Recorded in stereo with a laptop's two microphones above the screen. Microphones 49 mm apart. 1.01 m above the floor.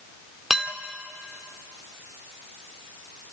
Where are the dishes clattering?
5° right (ahead or behind), 1.7 m.